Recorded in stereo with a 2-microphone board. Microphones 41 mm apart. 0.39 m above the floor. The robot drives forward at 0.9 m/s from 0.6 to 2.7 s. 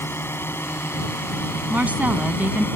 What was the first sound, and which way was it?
A drone, 70° left (ahead or behind).